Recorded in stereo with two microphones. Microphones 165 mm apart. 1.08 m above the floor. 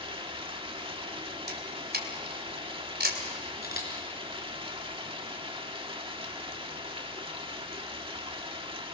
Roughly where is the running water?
Right.